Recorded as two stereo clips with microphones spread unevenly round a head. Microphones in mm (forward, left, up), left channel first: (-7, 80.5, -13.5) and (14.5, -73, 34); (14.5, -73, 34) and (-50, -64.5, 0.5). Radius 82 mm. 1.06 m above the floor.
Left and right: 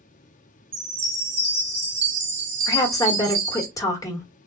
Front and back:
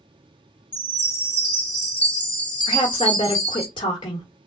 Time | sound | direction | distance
0.7 | a chime | 75° right | 1.8 m
2.7 | a woman speaking | 30° left | 1.2 m